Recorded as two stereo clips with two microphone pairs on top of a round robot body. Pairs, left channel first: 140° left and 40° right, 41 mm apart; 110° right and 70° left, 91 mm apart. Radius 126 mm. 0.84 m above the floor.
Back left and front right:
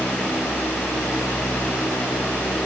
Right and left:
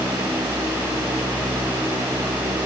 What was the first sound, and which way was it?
Only background noise.